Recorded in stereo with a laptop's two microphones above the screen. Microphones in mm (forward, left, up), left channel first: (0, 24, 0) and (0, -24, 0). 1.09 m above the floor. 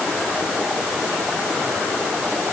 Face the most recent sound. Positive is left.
No sound to turn to.